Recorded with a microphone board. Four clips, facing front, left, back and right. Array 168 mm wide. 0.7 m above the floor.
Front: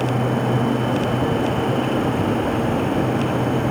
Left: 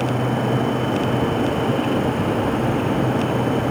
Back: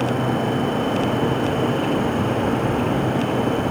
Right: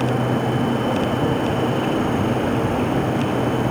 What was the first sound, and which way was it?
Only background noise.